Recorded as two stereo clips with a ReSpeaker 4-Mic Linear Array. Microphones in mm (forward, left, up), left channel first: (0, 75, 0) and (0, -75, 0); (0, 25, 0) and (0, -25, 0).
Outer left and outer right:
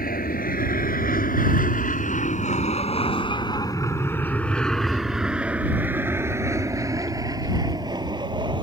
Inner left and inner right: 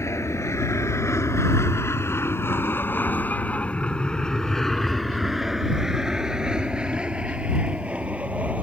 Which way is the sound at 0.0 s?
70° left (ahead or behind).